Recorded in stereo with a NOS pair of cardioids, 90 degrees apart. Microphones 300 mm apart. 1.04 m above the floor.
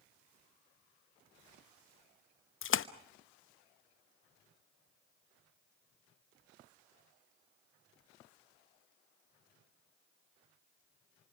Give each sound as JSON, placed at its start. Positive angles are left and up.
{"t": 2.6, "sound": "a splash", "azimuth_deg": 45, "distance_m": 0.9}